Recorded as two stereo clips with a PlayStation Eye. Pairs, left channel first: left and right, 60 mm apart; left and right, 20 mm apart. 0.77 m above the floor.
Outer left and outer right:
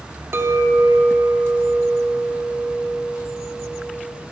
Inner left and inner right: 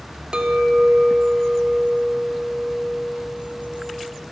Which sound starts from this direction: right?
A clink, at 0.3 s.